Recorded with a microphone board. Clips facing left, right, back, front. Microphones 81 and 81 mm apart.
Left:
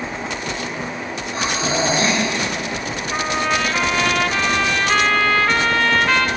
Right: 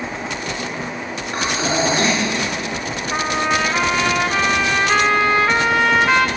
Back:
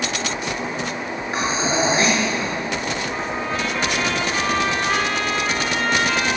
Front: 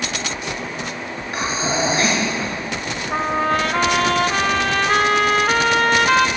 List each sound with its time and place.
1.3 s breathing: 120° right, 5.5 m
3.1 s a trumpet: 15° right, 0.8 m